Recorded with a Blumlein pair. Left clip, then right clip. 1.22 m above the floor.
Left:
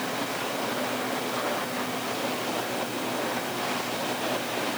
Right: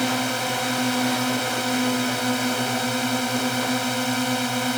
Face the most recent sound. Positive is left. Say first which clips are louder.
# right 6 dB
turn(degrees=-55)